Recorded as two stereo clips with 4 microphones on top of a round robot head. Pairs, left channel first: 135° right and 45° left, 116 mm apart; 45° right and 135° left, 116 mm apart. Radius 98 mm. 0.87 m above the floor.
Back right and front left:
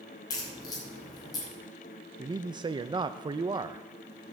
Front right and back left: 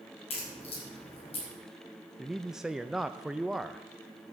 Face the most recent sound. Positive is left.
turn(degrees=50)